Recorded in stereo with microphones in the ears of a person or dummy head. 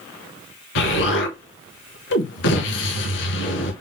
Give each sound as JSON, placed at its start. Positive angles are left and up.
{"t": 0.8, "sound": "an explosion", "side_deg": 60, "distance_m": 0.9}